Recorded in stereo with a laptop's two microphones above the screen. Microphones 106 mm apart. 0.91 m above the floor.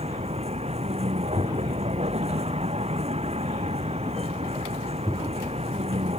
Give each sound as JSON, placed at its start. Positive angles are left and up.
{"t": 0.0, "sound": "a vehicle", "side_deg": -80}